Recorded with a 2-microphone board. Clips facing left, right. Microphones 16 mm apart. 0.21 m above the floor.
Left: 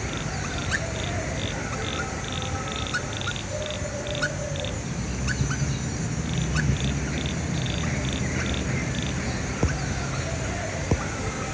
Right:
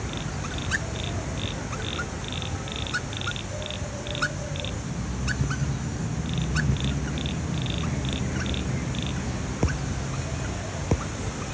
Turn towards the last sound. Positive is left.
turn(degrees=35)  # may be behind; listen again after turning